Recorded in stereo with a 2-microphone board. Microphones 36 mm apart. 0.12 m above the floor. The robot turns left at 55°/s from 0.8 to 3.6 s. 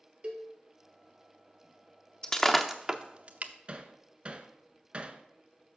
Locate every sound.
0.2 s a cowbell: 30° right (ahead or behind), 1.1 m
2.2 s breaking glass: 20° left (ahead or behind), 0.8 m; by 3.5 s 50° right (ahead or behind), 0.8 m
3.7 s hammering: 35° right (ahead or behind), 0.5 m